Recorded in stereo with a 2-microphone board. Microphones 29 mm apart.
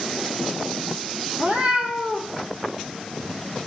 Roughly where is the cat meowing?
Right.